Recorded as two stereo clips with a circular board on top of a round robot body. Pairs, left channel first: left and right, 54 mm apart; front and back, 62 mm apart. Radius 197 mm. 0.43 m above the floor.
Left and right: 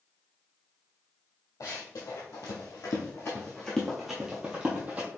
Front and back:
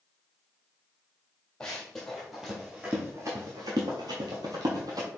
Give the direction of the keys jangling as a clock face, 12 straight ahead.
I don't hear keys jangling.